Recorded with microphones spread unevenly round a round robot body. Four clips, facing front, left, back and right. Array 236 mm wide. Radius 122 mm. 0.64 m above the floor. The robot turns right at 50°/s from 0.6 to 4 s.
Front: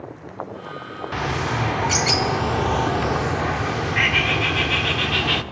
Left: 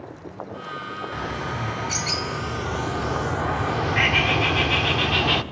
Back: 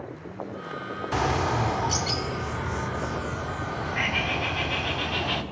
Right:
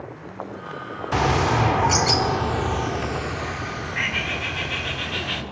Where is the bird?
95° right, 1.6 m; by 5.4 s 50° left, 1.6 m.